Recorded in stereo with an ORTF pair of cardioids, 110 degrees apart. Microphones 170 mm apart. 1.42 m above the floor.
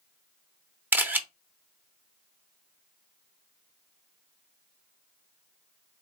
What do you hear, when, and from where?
0.9 s a camera shutter: 10° right, 0.8 m